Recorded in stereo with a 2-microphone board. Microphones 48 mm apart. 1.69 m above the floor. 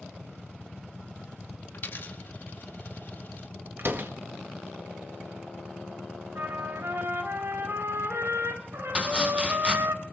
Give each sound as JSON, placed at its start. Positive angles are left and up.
{"t": 1.7, "sound": "a dropped coin", "side_deg": 45, "distance_m": 1.5}
{"t": 3.8, "sound": "a door slam", "side_deg": -50, "distance_m": 1.3}
{"t": 6.3, "sound": "a trumpet", "side_deg": -60, "distance_m": 2.5}
{"t": 8.9, "sound": "chopping", "side_deg": -25, "distance_m": 2.5}